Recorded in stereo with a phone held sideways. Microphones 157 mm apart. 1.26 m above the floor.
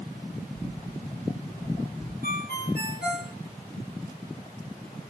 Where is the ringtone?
80° left, 3 m.